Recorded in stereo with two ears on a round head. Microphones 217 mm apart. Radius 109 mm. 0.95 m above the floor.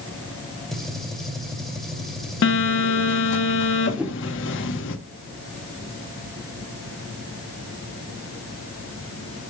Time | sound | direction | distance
0.7 | a gunshot | centre (ahead or behind) | 2.5 m
2.4 | a phone buzzing | 55° left (ahead or behind) | 1.1 m
4.0 | a whoosh | 5° right (ahead or behind) | 1.1 m